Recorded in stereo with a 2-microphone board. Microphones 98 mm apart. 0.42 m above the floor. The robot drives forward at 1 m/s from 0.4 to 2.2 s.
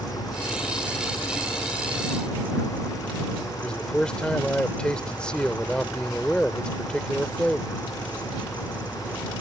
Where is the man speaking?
10° left (ahead or behind).